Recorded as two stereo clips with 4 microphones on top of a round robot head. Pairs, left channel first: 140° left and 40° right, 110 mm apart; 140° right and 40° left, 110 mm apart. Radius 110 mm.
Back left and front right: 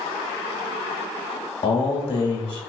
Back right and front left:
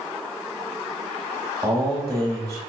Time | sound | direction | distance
1.6 | a man speaking | 105° left | 1.1 m